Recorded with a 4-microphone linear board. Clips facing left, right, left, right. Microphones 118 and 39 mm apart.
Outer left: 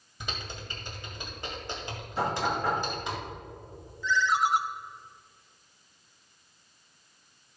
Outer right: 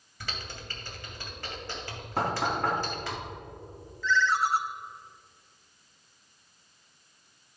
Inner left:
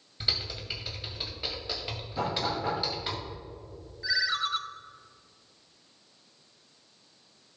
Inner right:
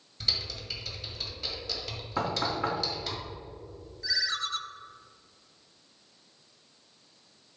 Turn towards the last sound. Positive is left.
turn(degrees=15)  # may be behind; listen again after turning